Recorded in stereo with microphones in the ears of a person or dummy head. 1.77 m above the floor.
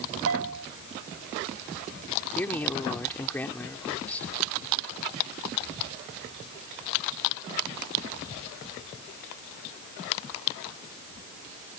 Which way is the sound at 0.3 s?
85° right.